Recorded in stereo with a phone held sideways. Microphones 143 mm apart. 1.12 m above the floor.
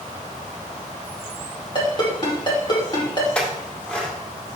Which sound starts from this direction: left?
A ringtone, at 1.8 s.